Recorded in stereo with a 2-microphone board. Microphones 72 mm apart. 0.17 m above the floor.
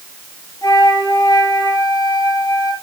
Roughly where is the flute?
Left.